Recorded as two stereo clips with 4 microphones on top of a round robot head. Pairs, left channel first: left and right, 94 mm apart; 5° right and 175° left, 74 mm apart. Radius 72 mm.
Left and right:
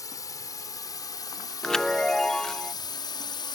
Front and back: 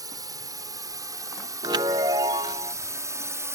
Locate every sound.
0.0 s a drone: 145° left; by 3.5 s 130° left
1.6 s a chime: 170° left